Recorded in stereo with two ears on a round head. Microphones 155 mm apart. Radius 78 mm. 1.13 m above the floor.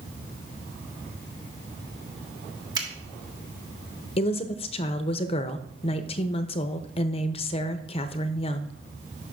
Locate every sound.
2.8 s a finger snap: 25° right (ahead or behind), 1.4 m
4.2 s a woman speaking: 35° left (ahead or behind), 0.5 m